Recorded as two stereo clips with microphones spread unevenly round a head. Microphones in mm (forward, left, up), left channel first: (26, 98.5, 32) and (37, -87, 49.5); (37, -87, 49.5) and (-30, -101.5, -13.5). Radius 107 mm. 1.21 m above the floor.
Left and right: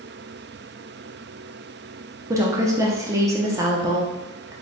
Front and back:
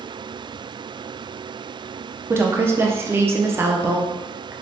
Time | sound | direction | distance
2.3 | a woman speaking | 160° right | 0.6 m